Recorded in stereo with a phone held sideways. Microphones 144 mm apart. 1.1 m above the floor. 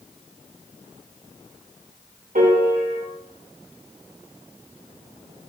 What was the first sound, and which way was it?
A piano, 70° right (ahead or behind).